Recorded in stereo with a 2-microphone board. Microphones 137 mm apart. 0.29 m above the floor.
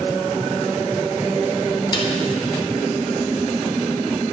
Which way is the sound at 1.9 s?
35° left (ahead or behind).